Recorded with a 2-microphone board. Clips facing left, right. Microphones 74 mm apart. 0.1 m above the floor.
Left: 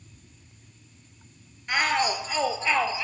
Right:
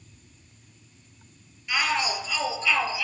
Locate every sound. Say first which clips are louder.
1.7 s a shout: left 2 dB; 45° left (ahead or behind), 2 m; by 3.0 s 30° left (ahead or behind), 2.5 m